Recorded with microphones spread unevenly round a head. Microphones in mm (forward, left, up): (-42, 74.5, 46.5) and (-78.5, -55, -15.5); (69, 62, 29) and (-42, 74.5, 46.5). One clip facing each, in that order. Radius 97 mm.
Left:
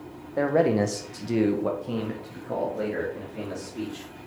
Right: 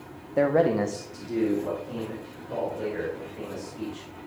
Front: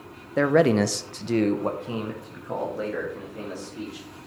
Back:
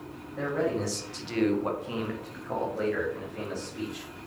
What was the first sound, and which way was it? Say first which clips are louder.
A man speaking: even, front 10 dB; 30° right.